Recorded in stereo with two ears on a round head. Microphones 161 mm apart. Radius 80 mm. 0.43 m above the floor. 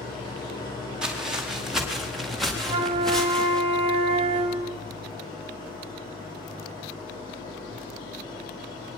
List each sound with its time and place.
0.0 s an engine running: 25° left (ahead or behind), 10 m
1.0 s footsteps: 5° right (ahead or behind), 6 m; by 3.6 s 5° left (ahead or behind), 7.5 m
2.6 s a flute: 35° right (ahead or behind), 1.5 m